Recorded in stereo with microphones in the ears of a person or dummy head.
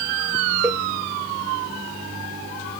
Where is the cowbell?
15° right (ahead or behind), 0.6 m.